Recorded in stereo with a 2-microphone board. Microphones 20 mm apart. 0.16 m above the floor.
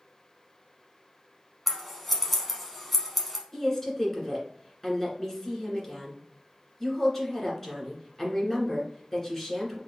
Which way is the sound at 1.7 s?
5° left (ahead or behind).